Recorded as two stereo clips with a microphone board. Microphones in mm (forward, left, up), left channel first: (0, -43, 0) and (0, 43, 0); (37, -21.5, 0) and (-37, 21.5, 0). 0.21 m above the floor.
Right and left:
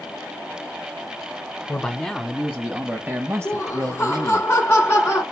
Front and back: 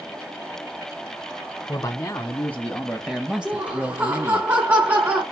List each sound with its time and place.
1.7 s a man speaking: 15° right, 1.3 m; by 4.5 s 110° left, 1.5 m
3.5 s laughter: 150° right, 2 m